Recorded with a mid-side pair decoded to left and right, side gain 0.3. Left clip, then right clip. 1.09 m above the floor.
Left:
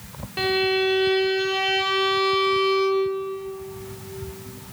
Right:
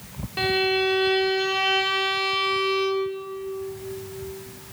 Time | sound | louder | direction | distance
0.4 | a violin | left 1 dB | straight ahead | 0.9 m